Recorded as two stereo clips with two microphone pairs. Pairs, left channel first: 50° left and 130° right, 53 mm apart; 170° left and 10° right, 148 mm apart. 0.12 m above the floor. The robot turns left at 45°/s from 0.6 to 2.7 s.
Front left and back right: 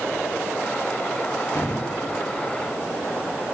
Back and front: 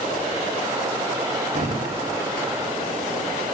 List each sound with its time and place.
1.5 s a thud: 25° left, 9 m; by 1.8 s 10° left, 9 m